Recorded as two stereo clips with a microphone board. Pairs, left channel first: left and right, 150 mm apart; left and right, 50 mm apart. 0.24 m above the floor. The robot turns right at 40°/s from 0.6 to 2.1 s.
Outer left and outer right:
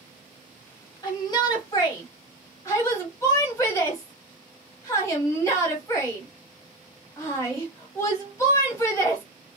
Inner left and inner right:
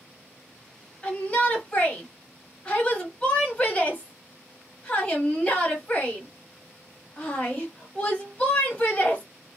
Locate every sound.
1.0 s a shout: 30° left (ahead or behind), 1.1 m; by 9.2 s 20° left (ahead or behind), 1.1 m